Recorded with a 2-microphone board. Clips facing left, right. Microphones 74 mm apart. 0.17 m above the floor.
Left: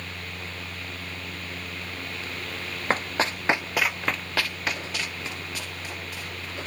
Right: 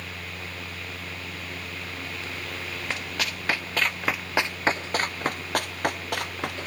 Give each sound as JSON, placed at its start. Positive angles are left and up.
{"t": 2.9, "sound": "running footsteps", "side_deg": 40, "distance_m": 1.6}